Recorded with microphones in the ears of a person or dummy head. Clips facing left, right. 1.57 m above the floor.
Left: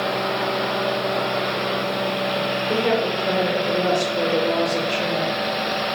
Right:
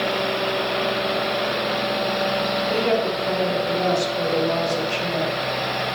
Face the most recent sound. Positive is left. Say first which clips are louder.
# left 1 dB
turn(degrees=40)  # may be behind; listen again after turning